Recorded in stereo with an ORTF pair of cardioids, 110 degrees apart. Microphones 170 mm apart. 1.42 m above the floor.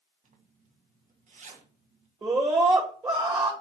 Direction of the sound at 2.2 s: 25° right.